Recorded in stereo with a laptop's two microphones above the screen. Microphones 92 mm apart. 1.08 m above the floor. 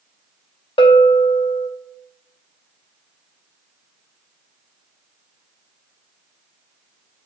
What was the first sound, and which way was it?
A bell, 70° left (ahead or behind).